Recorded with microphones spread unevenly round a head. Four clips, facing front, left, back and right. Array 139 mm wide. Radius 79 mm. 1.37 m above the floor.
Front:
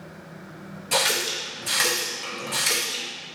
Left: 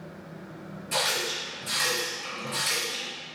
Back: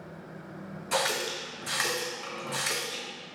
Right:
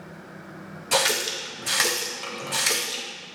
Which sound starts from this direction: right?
A running tap, at 0.9 s.